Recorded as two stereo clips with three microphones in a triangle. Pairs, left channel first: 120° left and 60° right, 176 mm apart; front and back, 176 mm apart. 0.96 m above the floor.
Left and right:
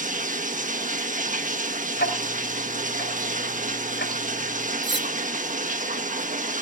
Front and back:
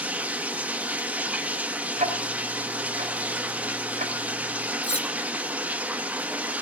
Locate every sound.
0.0 s running water: 100° right, 1.2 m
2.0 s ticking: 135° left, 2.5 m
4.8 s cutlery clinking: 55° right, 1.0 m